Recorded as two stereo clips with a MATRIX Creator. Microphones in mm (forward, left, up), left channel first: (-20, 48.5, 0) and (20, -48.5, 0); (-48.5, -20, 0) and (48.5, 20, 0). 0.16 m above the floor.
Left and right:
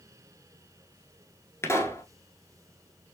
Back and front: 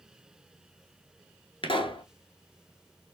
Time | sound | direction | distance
1.6 | a pop | 175° left | 1.0 m